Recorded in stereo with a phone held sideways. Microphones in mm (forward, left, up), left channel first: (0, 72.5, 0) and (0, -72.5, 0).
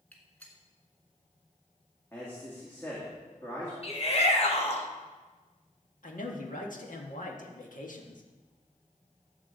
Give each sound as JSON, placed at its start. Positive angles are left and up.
{"t": 0.1, "sound": "a gunshot", "side_deg": 10, "distance_m": 2.0}
{"t": 2.1, "sound": "a man speaking", "side_deg": 15, "distance_m": 2.0}
{"t": 3.8, "sound": "a shout", "side_deg": 45, "distance_m": 1.6}
{"t": 6.0, "sound": "a man speaking", "side_deg": 70, "distance_m": 1.6}